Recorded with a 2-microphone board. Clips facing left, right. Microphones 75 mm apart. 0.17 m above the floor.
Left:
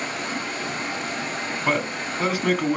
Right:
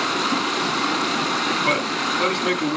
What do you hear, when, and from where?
0.0 s running water: 80° right, 1.3 m
1.6 s a man speaking: 5° left (ahead or behind), 1.5 m